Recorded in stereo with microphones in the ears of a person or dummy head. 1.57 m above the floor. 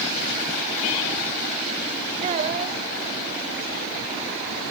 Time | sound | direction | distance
2.2 | a child speaking | 40° right (ahead or behind) | ?